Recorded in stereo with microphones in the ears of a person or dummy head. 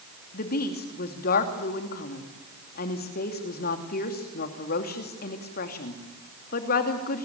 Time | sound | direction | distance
0.3 | a woman speaking | 50° left (ahead or behind) | 2.5 m